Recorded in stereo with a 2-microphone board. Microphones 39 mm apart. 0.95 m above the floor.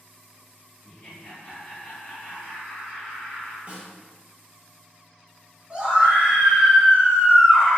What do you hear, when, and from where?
0.8 s laughter: 50° left (ahead or behind), 1.1 m
3.7 s a snare drum: 35° right (ahead or behind), 0.8 m
5.7 s a scream: 30° right (ahead or behind), 1.5 m